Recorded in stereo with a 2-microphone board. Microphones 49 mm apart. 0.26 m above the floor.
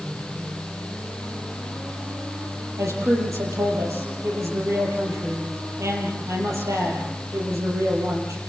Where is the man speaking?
80° right, 6 m.